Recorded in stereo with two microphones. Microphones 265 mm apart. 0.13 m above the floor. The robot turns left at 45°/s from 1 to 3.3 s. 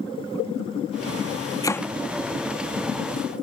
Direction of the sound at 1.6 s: 15° left (ahead or behind).